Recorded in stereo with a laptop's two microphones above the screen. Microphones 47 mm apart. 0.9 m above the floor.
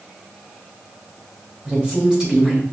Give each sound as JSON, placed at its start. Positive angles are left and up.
{"t": 1.6, "sound": "a woman speaking", "side_deg": -15, "distance_m": 1.1}